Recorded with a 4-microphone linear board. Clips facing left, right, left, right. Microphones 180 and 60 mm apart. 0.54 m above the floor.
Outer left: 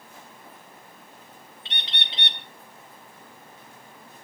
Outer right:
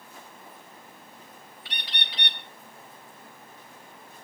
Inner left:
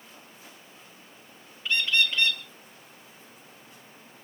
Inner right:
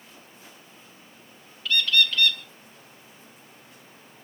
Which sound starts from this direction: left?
A bird, at 1.6 s.